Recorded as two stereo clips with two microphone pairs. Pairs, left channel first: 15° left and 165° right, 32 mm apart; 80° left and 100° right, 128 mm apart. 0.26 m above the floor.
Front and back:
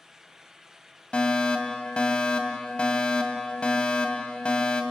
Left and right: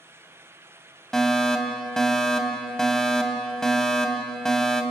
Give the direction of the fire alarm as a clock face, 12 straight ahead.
12 o'clock.